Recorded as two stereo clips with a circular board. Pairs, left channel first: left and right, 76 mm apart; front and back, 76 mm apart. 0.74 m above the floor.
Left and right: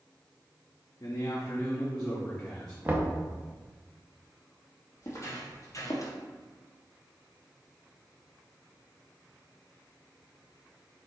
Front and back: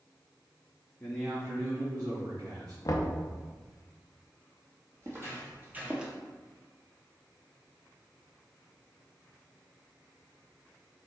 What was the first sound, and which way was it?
A man speaking, 65° left.